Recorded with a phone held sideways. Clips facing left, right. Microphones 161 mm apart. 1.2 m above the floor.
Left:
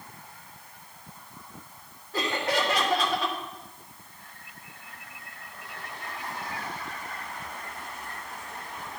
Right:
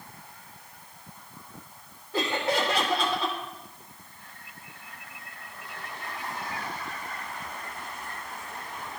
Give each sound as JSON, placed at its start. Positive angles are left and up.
{"t": 2.1, "sound": "laughter", "side_deg": -10, "distance_m": 2.0}